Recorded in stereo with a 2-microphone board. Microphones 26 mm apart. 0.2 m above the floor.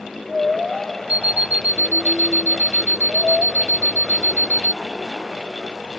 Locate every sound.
1.1 s an alarm clock: 65° right (ahead or behind)